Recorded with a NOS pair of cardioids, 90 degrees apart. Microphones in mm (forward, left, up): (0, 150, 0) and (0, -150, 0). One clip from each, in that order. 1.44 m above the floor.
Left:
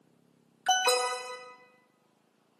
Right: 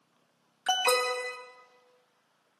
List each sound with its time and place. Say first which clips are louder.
0.7 s an alarm: even; 10° right, 1.1 m